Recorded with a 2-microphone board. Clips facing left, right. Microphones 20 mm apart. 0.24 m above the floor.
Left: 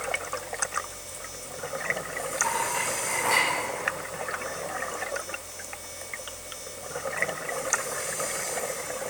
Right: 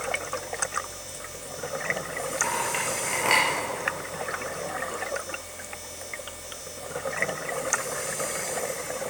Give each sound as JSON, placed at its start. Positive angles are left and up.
{"t": 2.4, "sound": "a clink", "side_deg": -35, "distance_m": 3.0}